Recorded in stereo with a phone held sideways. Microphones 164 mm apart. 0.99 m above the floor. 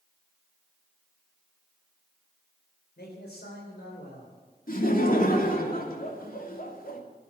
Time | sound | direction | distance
3.0 | a man speaking | 85° left | 4 m
4.7 | laughter | 60° left (ahead or behind) | 3 m